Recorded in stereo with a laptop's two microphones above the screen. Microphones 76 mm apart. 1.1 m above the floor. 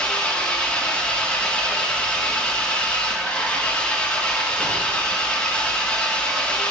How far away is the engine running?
About 1.2 m.